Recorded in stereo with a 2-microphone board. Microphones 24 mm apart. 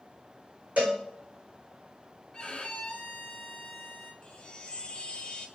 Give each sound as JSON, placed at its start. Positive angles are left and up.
{"t": 0.8, "sound": "a cowbell", "side_deg": -80, "distance_m": 2.5}
{"t": 2.3, "sound": "a violin", "side_deg": 35, "distance_m": 1.1}
{"t": 4.2, "sound": "a chime", "side_deg": 40, "distance_m": 0.7}